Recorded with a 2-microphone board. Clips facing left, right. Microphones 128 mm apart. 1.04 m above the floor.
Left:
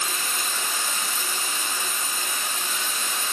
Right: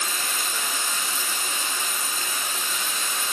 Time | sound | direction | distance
0.0 | running water | 30° left (ahead or behind) | 1.0 m